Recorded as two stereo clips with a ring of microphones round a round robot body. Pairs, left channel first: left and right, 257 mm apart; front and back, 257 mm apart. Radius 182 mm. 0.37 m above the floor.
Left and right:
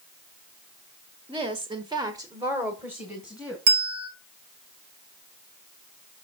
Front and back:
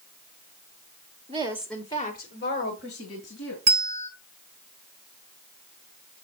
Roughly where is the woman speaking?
Behind right.